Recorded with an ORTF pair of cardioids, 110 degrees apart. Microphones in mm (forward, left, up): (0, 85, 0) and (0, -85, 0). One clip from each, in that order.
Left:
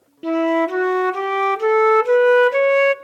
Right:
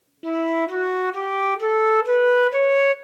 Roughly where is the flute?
Ahead.